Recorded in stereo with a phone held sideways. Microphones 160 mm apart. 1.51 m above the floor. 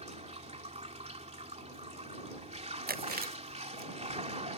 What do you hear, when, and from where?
0.0 s running water: 40° right (ahead or behind)
2.9 s chewing: 60° right (ahead or behind)